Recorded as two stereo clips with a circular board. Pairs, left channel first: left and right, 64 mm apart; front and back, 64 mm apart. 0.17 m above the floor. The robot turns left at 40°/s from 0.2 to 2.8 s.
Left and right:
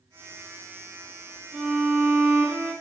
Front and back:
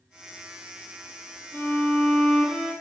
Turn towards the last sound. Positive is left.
turn(degrees=-90)